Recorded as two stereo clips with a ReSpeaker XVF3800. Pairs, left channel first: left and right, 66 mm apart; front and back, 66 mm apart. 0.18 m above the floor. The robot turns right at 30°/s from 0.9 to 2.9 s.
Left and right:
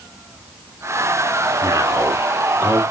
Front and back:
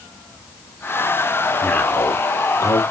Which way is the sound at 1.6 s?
60° right.